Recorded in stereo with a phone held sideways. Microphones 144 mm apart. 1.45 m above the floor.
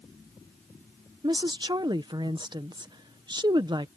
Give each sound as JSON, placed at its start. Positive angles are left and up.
{"t": 1.2, "sound": "a woman speaking", "side_deg": -30}